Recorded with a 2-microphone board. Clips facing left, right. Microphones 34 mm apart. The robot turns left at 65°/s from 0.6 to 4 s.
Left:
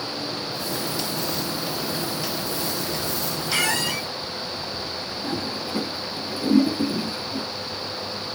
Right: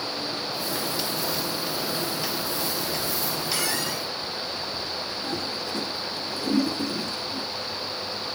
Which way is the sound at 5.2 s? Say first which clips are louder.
Left 4 dB; 20° left (ahead or behind).